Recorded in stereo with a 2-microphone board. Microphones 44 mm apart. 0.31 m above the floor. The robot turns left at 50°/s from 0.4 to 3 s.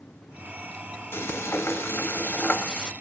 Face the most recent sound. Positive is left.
turn(degrees=15)